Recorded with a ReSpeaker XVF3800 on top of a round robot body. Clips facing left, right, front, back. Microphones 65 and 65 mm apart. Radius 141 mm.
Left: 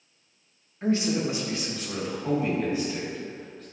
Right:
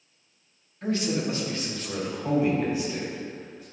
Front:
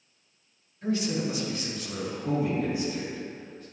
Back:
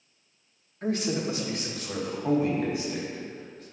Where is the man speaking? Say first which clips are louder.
Left 2 dB, even; 150° left, 1.5 m; by 3.6 s straight behind, 4.5 m.